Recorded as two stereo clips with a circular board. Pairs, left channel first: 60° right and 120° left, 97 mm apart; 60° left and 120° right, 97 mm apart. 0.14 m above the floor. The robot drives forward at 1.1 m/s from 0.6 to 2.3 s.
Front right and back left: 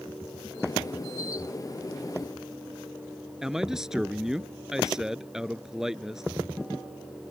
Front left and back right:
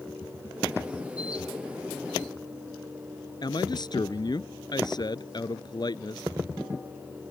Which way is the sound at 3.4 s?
35° left.